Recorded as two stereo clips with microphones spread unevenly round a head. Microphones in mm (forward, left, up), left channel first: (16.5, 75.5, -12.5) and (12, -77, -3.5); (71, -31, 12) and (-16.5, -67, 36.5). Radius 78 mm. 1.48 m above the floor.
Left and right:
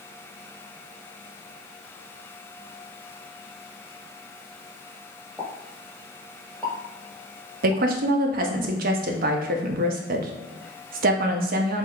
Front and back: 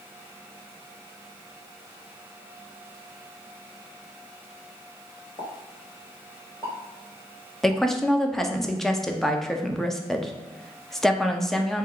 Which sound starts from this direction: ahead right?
A woman speaking, at 7.6 s.